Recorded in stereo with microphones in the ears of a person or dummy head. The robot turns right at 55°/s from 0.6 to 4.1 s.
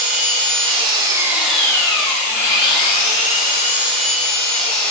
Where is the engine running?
50° right, 2.5 m; by 4.9 s 145° left, 2.5 m.